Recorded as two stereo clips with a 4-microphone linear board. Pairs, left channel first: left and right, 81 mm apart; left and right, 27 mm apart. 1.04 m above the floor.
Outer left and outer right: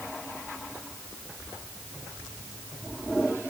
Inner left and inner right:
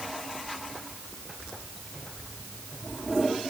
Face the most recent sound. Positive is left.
No sound to turn to.